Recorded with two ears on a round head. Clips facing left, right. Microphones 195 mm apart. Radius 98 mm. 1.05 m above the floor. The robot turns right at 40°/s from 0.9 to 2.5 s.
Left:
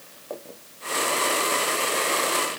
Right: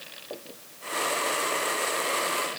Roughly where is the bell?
I don't hear a bell.